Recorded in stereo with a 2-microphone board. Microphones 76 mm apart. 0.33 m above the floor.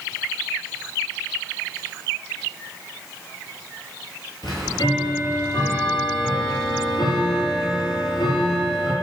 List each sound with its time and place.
4.4 s ticking: 70° left (ahead or behind), 8.5 m